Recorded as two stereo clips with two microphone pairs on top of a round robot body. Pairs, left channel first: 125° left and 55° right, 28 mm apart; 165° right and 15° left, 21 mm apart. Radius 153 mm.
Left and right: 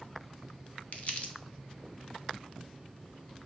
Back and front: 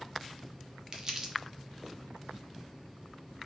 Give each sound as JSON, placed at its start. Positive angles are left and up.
{"t": 0.9, "sound": "crumpling", "azimuth_deg": 80, "distance_m": 0.6}